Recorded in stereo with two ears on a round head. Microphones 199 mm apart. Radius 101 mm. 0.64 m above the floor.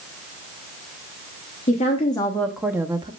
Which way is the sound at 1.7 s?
30° left (ahead or behind).